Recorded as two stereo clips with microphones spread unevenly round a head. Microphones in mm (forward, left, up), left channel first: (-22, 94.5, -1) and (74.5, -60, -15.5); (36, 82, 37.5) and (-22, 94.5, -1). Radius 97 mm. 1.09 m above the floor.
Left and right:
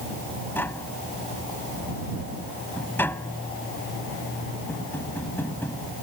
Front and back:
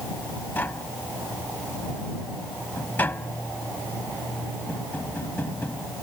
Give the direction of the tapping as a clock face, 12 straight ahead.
11 o'clock.